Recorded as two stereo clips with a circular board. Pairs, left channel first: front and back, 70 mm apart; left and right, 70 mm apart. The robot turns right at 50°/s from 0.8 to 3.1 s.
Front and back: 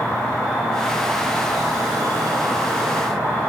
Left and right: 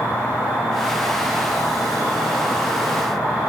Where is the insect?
65° left, 1.0 m; by 3.5 s straight behind, 1.0 m.